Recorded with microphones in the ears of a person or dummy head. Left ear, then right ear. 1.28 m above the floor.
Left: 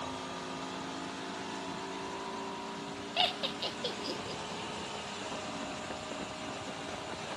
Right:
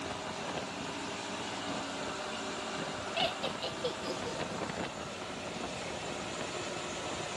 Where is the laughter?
20° left (ahead or behind), 1.1 m.